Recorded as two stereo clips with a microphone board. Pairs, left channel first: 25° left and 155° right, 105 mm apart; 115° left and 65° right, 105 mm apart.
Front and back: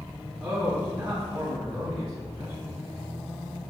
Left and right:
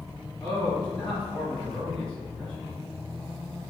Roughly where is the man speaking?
Behind.